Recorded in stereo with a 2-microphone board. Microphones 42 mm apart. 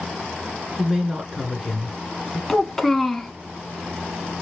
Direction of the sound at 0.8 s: 5° right (ahead or behind).